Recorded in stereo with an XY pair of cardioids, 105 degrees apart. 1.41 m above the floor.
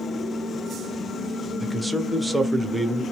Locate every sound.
1.6 s a man speaking: 5° right, 0.7 m